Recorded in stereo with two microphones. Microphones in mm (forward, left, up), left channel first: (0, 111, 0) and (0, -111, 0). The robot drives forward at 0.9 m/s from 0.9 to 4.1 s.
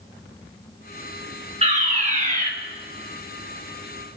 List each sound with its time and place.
1.6 s a fire alarm: 30° right (ahead or behind), 2.5 m; by 2.5 s 35° right (ahead or behind), 2 m